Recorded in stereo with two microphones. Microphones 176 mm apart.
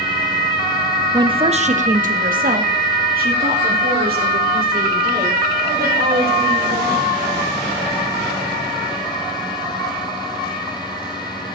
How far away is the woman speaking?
About 0.7 m.